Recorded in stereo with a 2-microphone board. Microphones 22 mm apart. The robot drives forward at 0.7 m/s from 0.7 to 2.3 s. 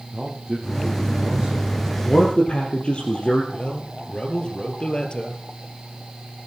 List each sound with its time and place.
0.1 s a man speaking: 25° right (ahead or behind), 3 m; by 1.9 s 35° right (ahead or behind), 2.5 m
2.0 s a man speaking: 45° left (ahead or behind), 3.5 m; by 3.4 s 50° left (ahead or behind), 3 m
3.5 s a man speaking: 45° left (ahead or behind), 2.5 m